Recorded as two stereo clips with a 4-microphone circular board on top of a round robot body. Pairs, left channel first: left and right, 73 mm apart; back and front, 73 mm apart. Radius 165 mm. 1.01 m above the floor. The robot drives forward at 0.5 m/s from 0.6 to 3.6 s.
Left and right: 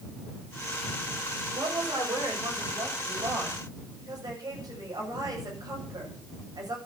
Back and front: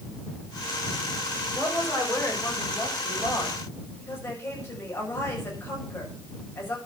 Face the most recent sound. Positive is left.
turn(degrees=-125)